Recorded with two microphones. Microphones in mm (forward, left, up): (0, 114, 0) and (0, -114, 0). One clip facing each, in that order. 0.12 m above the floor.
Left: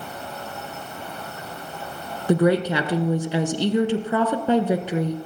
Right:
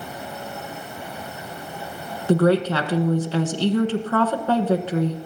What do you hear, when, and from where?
2.3 s a woman speaking: 15° left (ahead or behind), 1.2 m